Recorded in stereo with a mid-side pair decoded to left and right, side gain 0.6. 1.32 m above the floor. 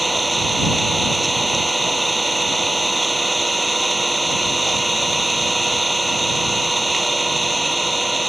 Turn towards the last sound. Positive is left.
turn(degrees=-10)